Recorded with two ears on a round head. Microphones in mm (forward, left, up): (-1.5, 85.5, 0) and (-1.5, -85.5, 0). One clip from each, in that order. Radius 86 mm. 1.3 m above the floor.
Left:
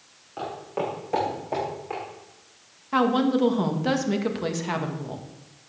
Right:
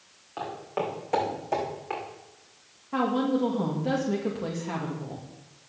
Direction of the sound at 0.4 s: 30° right (ahead or behind).